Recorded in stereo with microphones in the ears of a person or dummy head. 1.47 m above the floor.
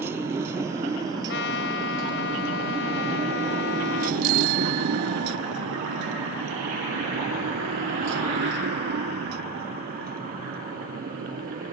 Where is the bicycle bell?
50° right (ahead or behind).